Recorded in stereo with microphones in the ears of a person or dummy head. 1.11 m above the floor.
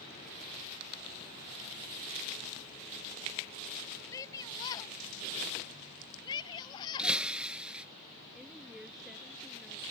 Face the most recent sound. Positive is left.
turn(degrees=-5)  # may be behind; listen again after turning